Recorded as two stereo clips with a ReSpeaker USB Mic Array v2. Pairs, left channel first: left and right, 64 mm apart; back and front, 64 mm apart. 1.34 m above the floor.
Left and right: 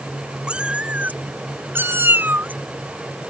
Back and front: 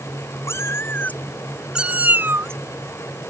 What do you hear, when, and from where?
0.5 s a cat meowing: 160° right; by 3.3 s 25° right